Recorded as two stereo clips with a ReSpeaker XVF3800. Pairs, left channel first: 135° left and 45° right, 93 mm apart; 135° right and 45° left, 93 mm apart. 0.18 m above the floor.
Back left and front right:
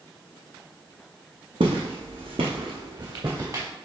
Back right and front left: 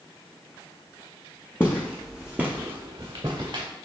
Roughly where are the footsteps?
Ahead right.